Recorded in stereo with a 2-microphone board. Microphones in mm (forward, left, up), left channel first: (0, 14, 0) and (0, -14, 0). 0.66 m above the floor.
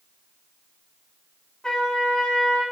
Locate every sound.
1.6 s a trumpet: 25° left (ahead or behind), 0.8 m